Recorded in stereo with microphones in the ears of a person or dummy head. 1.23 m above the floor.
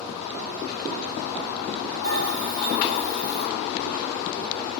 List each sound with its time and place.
2.0 s a bell: 40° right (ahead or behind), 2.5 m